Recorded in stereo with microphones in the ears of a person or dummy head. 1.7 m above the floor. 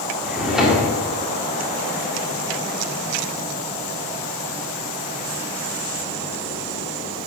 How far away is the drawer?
About 1.7 m.